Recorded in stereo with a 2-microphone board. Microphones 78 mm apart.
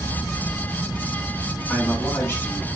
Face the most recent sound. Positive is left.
turn(degrees=20)  # may be behind; listen again after turning